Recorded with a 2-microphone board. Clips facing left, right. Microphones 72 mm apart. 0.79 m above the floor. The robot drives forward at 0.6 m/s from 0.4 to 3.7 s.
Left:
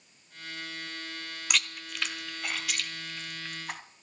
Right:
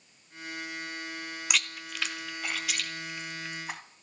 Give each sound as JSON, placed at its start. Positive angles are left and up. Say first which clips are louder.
{"t": 1.5, "sound": "chewing", "louder": "left 1 dB", "side_deg": 0, "distance_m": 1.0}